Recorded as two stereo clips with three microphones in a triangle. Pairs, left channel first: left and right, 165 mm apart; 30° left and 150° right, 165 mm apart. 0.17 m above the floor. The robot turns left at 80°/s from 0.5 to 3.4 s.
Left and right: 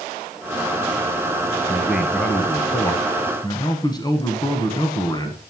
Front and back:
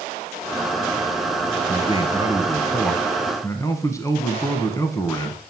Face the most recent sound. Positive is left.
turn(degrees=75)